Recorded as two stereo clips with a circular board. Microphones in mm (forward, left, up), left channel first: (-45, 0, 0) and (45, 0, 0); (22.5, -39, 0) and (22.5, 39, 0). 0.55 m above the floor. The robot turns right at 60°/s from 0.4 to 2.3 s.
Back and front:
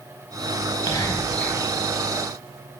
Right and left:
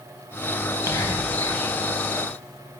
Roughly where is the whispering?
Behind right.